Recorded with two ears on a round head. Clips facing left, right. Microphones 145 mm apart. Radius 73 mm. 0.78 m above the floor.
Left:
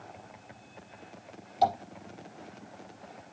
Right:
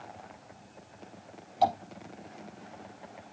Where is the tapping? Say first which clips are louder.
Even; 5° left (ahead or behind), 5.5 m.